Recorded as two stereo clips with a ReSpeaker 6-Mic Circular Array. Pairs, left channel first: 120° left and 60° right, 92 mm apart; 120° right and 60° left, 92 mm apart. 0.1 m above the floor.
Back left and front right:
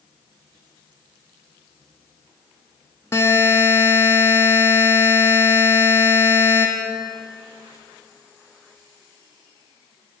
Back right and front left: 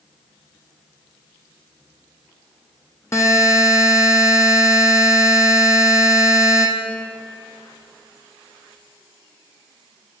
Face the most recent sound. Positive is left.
turn(degrees=-175)